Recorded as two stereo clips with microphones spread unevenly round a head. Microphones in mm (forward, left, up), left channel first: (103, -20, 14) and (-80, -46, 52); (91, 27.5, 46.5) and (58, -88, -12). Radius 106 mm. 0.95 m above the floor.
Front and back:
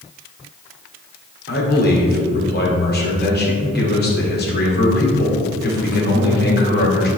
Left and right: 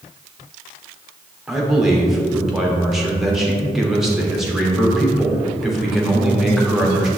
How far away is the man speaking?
About 2.5 m.